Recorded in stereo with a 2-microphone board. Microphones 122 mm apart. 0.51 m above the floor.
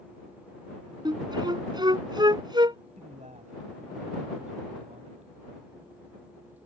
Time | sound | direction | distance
1.1 | a flute | 35° right (ahead or behind) | ?
3.0 | a man speaking | 75° right (ahead or behind) | ?